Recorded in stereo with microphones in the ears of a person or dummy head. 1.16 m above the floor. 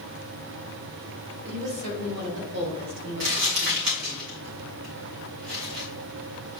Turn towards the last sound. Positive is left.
turn(degrees=-55)  # may be behind; listen again after turning